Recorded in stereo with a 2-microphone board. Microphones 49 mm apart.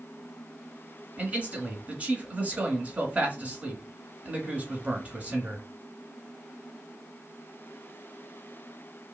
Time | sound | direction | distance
1.2 | a man speaking | 30° right (ahead or behind) | 1.1 m